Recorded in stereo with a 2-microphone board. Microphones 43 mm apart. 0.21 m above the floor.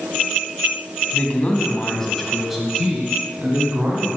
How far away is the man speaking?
About 1.9 m.